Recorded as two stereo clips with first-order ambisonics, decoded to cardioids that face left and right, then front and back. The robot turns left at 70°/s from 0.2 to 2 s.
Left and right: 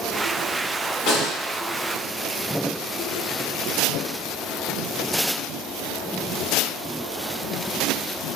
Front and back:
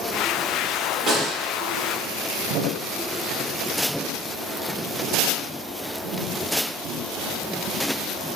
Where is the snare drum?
110° left, 1.7 m; by 1.3 s 90° left, 1.7 m.